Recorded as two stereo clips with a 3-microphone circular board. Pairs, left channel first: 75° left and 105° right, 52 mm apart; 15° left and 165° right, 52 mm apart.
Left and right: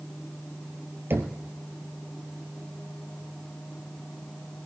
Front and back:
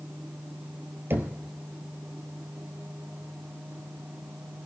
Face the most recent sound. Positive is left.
turn(degrees=-135)